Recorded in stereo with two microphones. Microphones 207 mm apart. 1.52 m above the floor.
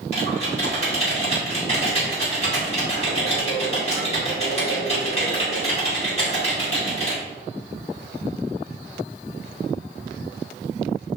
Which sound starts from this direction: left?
Typing on a keyboard, at 0.1 s.